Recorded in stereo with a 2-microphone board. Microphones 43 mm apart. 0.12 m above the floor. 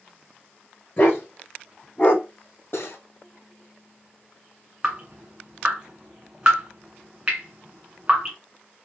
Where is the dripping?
25° right (ahead or behind), 1.9 m.